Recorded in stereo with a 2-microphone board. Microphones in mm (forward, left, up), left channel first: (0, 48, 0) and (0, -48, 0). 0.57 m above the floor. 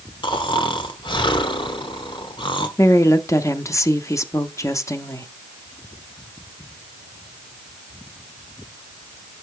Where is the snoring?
55° left (ahead or behind), 1.1 m.